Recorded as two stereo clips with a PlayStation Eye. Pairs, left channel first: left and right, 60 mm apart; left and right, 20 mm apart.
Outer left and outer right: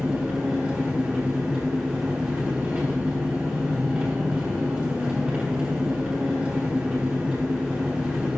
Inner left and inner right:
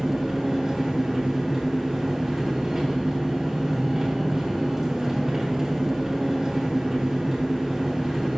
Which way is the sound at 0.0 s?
25° right (ahead or behind).